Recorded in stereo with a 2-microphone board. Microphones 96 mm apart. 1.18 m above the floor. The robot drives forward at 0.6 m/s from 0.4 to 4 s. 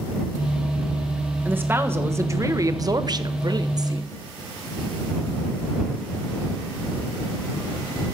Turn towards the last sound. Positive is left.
turn(degrees=-40)  # may be behind; listen again after turning